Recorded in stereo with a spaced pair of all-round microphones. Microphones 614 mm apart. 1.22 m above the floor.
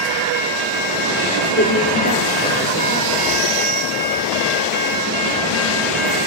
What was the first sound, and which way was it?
A woman speaking, 20° left (ahead or behind).